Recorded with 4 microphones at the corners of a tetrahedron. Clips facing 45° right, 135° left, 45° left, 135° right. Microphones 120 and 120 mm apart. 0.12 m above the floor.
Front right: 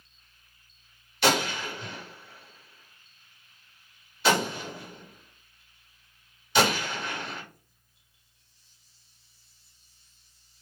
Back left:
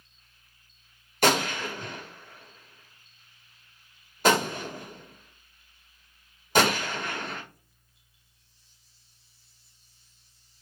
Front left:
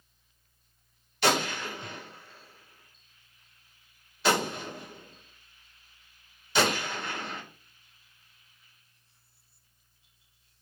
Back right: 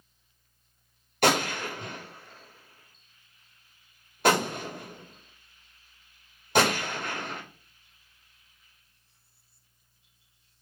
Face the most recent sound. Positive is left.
turn(degrees=180)